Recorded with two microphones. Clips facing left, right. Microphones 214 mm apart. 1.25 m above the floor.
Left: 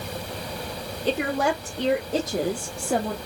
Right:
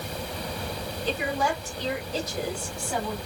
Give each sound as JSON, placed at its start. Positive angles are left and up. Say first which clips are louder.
{"t": 1.1, "sound": "a woman speaking", "louder": "left 4 dB", "side_deg": 80, "distance_m": 3.0}